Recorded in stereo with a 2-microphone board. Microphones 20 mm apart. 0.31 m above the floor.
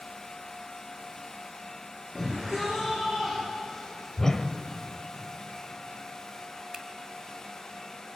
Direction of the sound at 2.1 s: 15° right (ahead or behind).